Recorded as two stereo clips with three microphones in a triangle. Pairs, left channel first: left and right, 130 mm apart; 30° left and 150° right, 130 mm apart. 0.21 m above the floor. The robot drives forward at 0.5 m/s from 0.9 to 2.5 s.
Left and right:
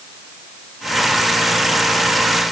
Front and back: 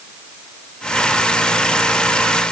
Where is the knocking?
I don't hear knocking.